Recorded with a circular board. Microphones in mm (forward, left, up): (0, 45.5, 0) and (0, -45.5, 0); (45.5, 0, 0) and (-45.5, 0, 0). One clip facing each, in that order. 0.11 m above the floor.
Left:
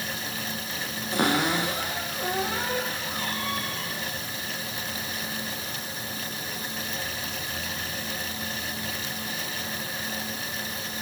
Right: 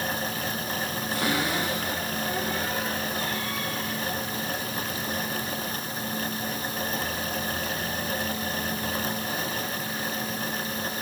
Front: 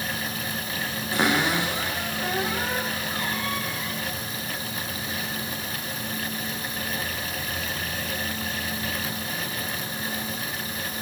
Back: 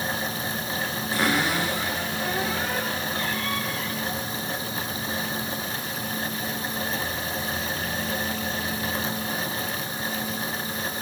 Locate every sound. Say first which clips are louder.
1.1 s a cupboard door: left 4 dB, front 1 dB; 65° left, 10 m